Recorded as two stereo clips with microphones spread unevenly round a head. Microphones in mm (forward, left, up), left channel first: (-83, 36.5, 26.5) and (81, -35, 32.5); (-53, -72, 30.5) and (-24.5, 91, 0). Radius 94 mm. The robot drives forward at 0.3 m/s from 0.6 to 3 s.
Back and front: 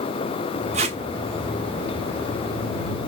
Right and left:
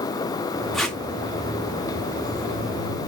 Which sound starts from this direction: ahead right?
Tape being pulled, at 0.7 s.